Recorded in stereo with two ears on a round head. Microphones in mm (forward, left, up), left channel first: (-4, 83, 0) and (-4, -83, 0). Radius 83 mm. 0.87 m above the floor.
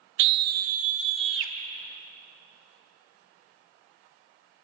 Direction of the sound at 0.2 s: 70° right (ahead or behind).